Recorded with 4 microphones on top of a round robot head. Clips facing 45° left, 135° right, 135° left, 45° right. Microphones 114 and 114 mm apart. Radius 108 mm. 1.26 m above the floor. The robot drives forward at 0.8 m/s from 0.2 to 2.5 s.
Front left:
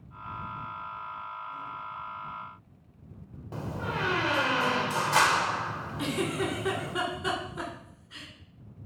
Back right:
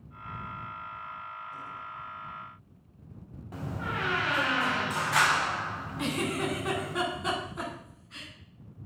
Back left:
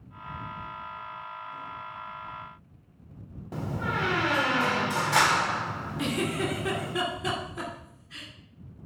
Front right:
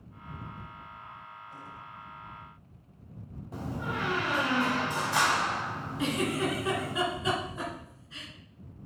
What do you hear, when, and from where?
3.5 s a door slam: 110° left, 1.0 m
6.0 s a giggle: 135° left, 2 m